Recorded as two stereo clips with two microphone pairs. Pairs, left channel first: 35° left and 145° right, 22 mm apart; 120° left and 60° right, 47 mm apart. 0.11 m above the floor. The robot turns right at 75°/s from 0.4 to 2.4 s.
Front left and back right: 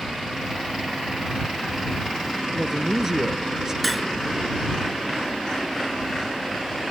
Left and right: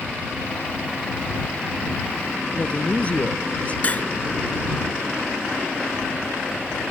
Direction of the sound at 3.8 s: 120° left.